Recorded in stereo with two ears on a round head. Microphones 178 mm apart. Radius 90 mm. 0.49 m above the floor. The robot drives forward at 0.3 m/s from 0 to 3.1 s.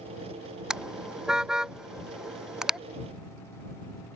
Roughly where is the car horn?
Centre.